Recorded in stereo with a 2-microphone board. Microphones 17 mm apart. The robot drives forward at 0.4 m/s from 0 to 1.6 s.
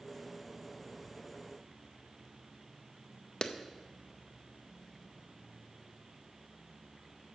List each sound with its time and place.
3.4 s a clap: 45° left (ahead or behind), 0.7 m